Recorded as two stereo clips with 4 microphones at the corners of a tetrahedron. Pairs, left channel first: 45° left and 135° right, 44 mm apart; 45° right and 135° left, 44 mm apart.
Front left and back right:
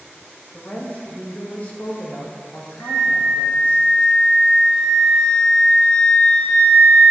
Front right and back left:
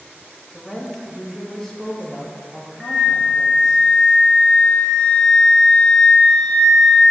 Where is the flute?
40° left, 1.0 m.